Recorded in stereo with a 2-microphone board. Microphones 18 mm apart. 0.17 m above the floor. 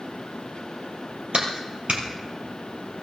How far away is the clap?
About 3.5 m.